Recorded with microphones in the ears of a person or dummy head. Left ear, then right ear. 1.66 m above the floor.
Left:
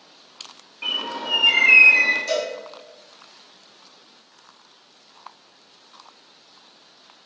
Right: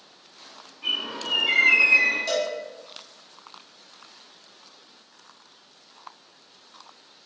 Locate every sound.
0.8 s a bird: 45° left (ahead or behind), 0.8 m
2.3 s a cowbell: 35° right (ahead or behind), 1.9 m